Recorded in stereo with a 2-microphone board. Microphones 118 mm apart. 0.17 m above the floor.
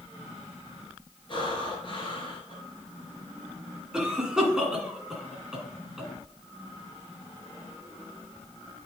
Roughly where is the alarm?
No alarm in this recording.